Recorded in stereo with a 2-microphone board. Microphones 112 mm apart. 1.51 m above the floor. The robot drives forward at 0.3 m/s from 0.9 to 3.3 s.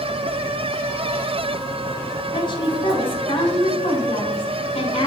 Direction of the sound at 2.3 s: 45° left (ahead or behind).